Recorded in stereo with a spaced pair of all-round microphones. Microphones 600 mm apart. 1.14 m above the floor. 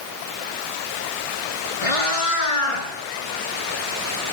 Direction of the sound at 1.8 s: 65° left (ahead or behind).